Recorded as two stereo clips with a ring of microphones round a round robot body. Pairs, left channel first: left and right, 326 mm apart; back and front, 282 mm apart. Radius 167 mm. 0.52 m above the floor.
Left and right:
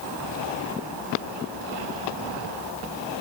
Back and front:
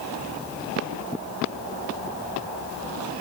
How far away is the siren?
I don't hear a siren.